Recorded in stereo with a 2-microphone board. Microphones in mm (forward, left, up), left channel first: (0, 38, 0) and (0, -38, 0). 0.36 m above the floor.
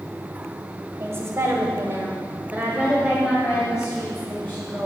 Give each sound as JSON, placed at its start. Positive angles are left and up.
{"t": 1.0, "sound": "a woman speaking", "side_deg": -35, "distance_m": 2.0}